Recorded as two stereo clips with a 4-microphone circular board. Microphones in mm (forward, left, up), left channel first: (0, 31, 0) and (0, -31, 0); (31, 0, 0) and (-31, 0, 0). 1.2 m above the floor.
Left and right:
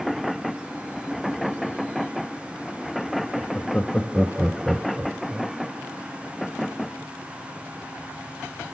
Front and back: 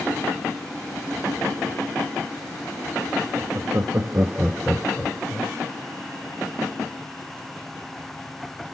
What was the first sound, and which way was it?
Laughter, 170° left.